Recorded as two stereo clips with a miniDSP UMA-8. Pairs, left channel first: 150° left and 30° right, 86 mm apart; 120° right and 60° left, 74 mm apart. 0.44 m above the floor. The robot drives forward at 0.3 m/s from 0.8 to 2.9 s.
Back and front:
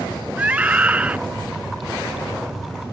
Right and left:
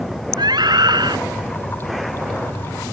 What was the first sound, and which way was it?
A scream, 40° left.